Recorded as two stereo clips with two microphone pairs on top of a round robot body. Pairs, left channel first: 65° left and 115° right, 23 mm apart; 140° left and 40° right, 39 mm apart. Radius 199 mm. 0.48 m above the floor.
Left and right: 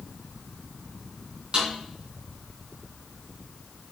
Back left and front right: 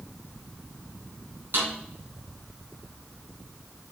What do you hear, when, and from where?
1.5 s a snare drum: 60° right, 3.5 m